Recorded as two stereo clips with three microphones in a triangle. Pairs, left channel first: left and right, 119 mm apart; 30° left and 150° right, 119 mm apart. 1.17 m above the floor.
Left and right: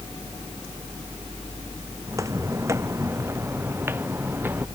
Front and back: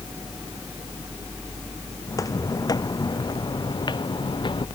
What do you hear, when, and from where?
2.1 s footsteps: 30° right; by 4.7 s 20° right